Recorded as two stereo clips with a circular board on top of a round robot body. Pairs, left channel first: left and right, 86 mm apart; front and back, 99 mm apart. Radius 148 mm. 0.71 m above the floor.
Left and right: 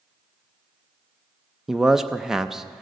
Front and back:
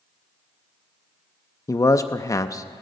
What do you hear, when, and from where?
1.7 s a man speaking: 5° right, 0.6 m